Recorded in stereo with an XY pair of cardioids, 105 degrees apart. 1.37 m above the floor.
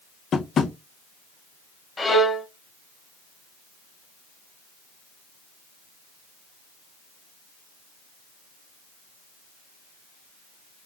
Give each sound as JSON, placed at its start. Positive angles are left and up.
{"t": 0.3, "sound": "tapping", "azimuth_deg": 45, "distance_m": 0.8}
{"t": 2.0, "sound": "a violin", "azimuth_deg": 25, "distance_m": 1.6}